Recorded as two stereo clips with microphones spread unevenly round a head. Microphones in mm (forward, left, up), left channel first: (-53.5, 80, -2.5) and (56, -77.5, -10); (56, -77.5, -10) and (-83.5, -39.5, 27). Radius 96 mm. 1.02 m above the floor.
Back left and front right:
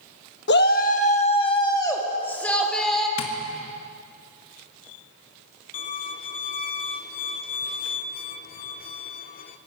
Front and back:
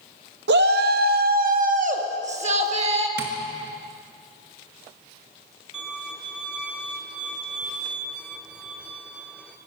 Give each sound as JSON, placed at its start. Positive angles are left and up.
{"t": 0.5, "sound": "a shout", "azimuth_deg": 160, "distance_m": 1.6}
{"t": 3.2, "sound": "tapping", "azimuth_deg": 135, "distance_m": 1.8}
{"t": 5.7, "sound": "a violin", "azimuth_deg": 90, "distance_m": 0.8}